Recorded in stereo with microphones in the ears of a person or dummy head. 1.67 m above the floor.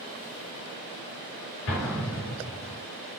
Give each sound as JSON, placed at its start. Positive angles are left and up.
{"t": 1.7, "sound": "an explosion", "side_deg": 60, "distance_m": 3.0}